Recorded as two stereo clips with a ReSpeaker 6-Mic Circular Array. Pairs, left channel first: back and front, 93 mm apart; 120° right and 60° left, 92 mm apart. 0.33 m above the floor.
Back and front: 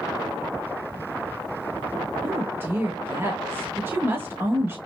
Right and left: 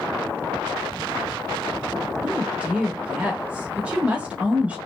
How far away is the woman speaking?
About 1.1 m.